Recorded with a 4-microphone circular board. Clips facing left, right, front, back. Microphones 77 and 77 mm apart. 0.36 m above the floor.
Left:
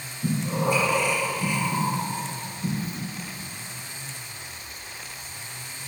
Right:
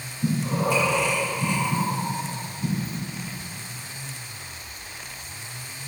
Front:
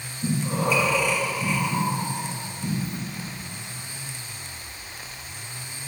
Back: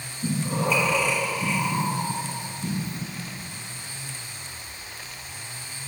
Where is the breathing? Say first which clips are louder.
Right 1 dB, front 1 dB; 90° right, 2 m.